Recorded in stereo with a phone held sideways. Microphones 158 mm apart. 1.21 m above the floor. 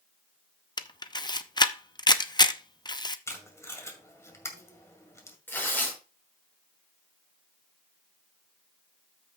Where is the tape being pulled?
20° left (ahead or behind), 2.0 m.